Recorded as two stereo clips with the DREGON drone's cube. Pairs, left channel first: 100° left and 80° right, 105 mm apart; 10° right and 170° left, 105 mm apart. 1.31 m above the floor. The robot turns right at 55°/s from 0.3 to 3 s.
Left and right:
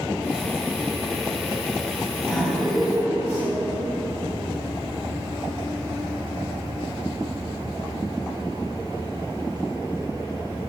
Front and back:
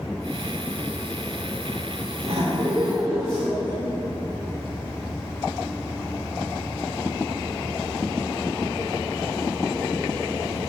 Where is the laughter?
170° right, 2 m; by 3.8 s 130° right, 2 m.